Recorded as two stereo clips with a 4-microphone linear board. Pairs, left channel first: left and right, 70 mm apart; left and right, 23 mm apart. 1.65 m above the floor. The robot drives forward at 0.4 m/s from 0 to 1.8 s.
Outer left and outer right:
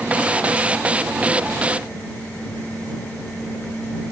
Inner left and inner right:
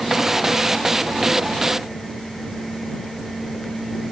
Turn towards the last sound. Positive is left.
No sound to turn to.